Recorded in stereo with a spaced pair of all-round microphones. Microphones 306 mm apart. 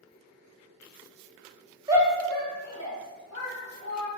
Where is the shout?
15° right (ahead or behind), 0.6 m; by 4.1 s 85° left, 1.0 m.